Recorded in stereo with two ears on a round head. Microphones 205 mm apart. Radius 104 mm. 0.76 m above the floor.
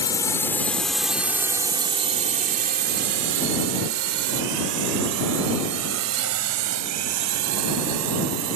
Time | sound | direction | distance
0.0 | a drone | 15° left (ahead or behind) | ?